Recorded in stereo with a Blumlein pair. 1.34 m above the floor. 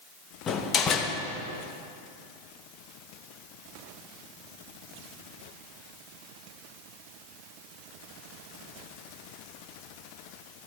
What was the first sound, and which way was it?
A door slam, 25° left.